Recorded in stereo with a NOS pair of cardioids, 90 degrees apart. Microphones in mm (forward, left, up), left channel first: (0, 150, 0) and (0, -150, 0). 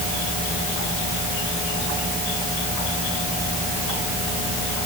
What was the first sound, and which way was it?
Only background noise.